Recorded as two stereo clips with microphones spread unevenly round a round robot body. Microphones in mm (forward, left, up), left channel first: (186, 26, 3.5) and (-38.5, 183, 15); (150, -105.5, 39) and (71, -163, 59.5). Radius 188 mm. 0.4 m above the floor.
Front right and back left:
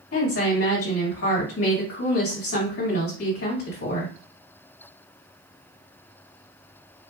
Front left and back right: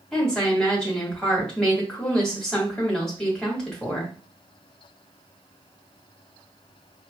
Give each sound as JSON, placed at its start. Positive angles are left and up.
{"t": 0.1, "sound": "a woman speaking", "azimuth_deg": -40, "distance_m": 2.0}